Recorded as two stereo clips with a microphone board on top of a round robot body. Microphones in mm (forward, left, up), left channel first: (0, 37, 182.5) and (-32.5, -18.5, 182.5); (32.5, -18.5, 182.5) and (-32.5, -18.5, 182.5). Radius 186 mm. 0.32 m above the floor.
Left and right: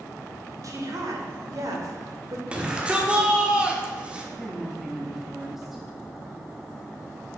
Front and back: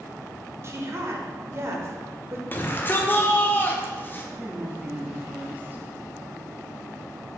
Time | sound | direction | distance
0.6 | a woman speaking | 140° right | 1.8 m
2.5 | a shout | 50° right | 1.6 m
4.4 | a woman speaking | 155° left | 1.2 m